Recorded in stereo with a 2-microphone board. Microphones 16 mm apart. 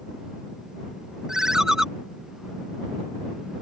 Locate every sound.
1.3 s a ringtone: 40° right (ahead or behind)